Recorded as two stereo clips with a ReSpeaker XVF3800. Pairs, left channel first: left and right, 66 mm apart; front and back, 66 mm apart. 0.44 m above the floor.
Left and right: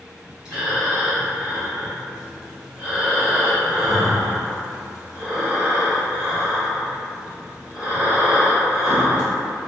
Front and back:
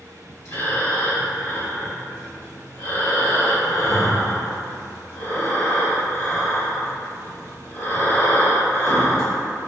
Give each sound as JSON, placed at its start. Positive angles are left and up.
{"t": 0.5, "sound": "breathing", "azimuth_deg": -15, "distance_m": 1.4}